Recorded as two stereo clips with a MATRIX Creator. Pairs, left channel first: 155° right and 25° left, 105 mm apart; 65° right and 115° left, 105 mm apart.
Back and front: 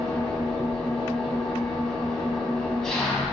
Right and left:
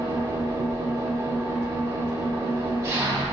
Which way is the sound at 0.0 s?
125° left.